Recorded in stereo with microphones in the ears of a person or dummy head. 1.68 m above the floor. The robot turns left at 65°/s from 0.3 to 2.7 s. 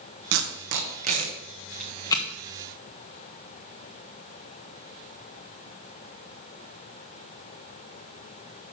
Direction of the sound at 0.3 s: 70° right (ahead or behind).